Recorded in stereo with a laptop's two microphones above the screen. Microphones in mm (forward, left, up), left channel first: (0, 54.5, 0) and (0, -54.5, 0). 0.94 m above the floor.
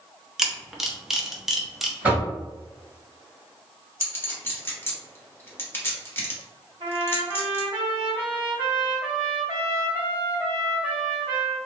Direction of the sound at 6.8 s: 55° right (ahead or behind).